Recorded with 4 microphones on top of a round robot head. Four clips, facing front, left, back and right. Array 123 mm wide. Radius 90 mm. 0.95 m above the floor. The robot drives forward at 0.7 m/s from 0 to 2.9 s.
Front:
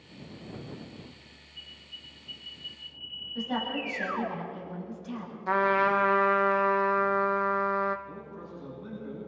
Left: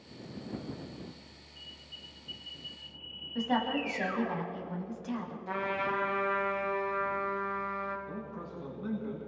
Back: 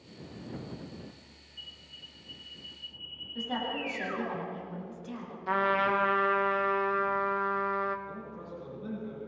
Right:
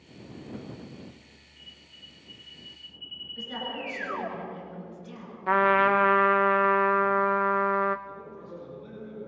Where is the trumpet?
70° right, 1.0 m.